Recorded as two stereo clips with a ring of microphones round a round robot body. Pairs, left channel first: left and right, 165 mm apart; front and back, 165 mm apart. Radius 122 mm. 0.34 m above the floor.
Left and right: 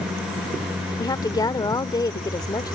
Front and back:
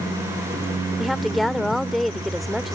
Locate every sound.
1.0 s a woman speaking: 90° left